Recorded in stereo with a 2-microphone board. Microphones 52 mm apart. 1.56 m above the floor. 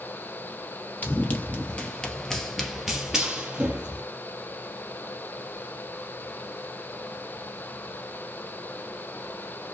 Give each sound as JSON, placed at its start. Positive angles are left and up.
{"t": 1.0, "sound": "running footsteps", "side_deg": 35, "distance_m": 1.8}